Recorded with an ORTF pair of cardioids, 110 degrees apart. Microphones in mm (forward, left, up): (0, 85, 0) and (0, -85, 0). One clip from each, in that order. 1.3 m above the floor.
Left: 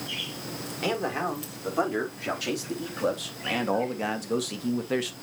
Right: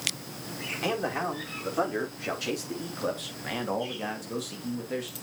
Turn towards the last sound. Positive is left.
turn(degrees=45)